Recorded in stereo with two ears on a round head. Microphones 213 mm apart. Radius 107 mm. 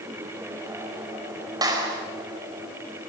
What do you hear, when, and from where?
1.6 s a clap: 15° right (ahead or behind), 5 m